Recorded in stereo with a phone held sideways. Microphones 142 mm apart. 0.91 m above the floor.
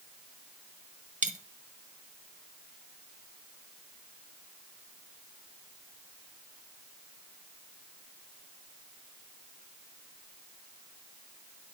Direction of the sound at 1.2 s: 55° right (ahead or behind).